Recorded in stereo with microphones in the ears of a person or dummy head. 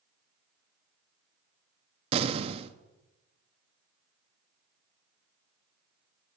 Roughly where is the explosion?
Right.